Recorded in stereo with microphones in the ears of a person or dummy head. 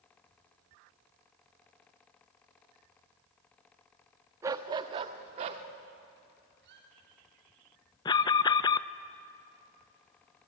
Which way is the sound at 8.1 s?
20° left (ahead or behind).